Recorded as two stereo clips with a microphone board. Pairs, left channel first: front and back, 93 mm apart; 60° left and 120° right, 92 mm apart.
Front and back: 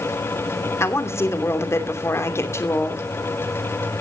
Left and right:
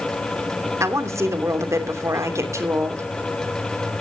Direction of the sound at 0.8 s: 60° right.